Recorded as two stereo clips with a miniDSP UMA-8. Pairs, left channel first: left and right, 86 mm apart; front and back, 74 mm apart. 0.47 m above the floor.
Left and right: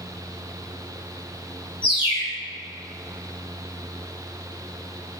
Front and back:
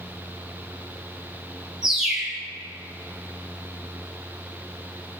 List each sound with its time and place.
1.8 s a bird: 95° left, 3 m